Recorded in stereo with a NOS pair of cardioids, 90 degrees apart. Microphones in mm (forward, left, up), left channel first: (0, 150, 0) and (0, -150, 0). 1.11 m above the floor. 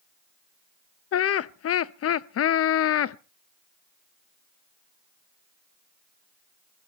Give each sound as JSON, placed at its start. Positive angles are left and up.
{"t": 1.1, "sound": "laughter", "azimuth_deg": 50, "distance_m": 0.8}